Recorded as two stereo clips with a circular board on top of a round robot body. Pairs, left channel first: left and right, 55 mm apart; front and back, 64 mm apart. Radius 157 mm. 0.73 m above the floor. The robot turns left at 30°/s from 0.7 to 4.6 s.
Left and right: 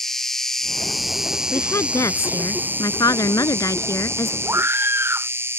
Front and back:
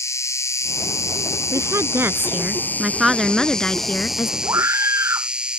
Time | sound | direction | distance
0.0 | an insect | 10° left | ?
1.5 | a woman speaking | 140° left | ?
4.5 | a scream | 130° right | ?